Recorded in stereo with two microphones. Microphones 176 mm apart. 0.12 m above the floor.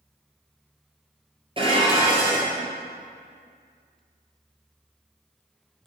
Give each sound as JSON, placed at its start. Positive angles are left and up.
{"t": 1.6, "sound": "dishes clattering", "side_deg": -30, "distance_m": 1.7}